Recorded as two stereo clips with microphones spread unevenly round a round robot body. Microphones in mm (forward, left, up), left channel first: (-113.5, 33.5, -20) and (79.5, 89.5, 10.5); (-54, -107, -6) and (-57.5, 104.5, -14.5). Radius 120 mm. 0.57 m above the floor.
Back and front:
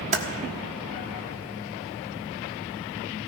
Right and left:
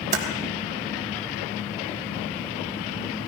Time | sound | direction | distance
0.1 | typing on a keyboard | 65° left | 1.5 m